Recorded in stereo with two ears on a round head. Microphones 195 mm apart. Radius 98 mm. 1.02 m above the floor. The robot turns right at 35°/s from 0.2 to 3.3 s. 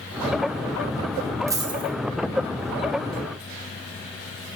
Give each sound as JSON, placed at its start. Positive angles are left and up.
{"t": 1.5, "sound": "a dropped coin", "side_deg": -15, "distance_m": 2.0}